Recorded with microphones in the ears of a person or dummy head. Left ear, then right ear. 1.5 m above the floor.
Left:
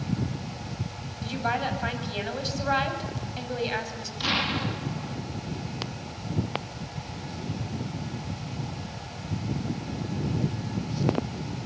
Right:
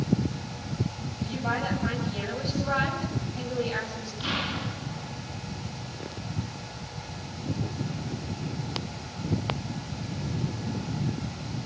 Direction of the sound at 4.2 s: 30° left (ahead or behind).